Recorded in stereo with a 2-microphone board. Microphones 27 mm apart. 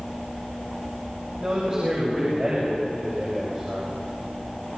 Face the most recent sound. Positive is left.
turn(degrees=-30)  # may be behind; listen again after turning